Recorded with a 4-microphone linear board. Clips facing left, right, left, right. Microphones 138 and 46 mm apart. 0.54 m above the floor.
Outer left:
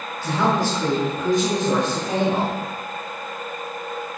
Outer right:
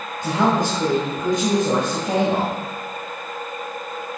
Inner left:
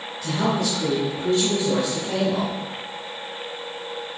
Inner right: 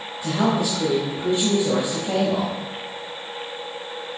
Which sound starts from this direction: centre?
A woman speaking, at 0.2 s.